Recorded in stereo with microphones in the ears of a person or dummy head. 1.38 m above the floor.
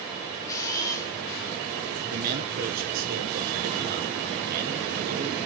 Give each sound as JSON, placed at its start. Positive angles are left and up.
{"t": 0.5, "sound": "a camera shutter", "side_deg": 20, "distance_m": 1.4}
{"t": 2.1, "sound": "a man speaking", "side_deg": -50, "distance_m": 1.3}